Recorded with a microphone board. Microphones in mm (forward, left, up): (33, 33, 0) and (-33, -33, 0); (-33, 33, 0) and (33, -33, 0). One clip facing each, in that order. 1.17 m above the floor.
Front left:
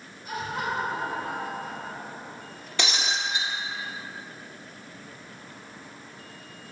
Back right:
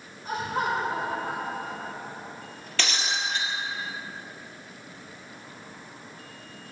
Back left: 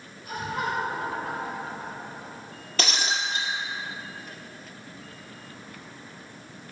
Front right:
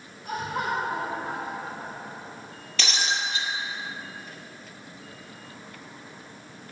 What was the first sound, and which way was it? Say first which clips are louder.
Laughter: back right 3 dB, front right 1 dB; 80° right.